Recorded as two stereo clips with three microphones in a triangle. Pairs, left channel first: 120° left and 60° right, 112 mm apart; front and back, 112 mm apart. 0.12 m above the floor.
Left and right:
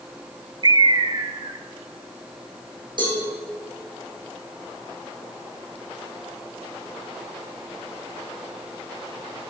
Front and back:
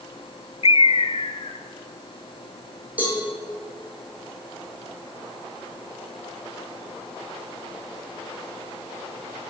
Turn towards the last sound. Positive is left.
turn(degrees=-105)